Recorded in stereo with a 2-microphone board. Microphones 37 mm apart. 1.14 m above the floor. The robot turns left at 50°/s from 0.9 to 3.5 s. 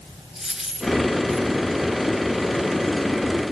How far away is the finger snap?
I don't hear a finger snap.